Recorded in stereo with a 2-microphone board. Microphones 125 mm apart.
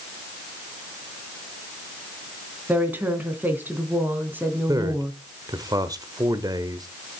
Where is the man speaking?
30° right (ahead or behind), 1.2 m.